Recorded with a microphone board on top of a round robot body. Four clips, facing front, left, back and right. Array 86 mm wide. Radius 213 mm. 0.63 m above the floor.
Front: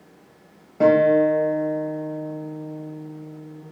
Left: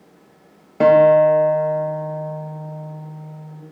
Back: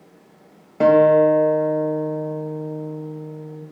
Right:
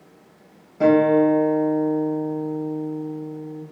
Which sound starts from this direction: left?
A guitar, at 0.8 s.